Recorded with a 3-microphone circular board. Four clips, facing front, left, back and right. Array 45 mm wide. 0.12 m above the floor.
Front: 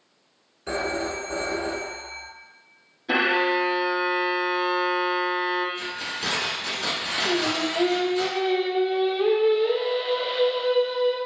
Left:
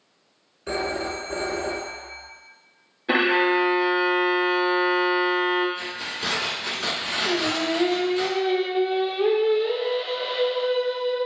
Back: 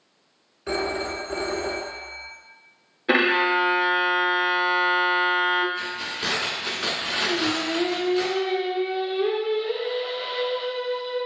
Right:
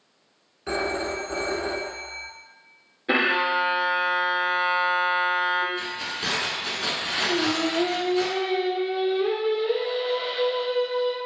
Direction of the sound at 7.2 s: 45° left.